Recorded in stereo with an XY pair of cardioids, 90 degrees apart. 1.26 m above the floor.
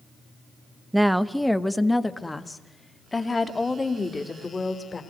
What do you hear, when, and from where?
0.9 s a woman speaking: 10° right, 1.0 m; by 5.0 s 30° left, 3.5 m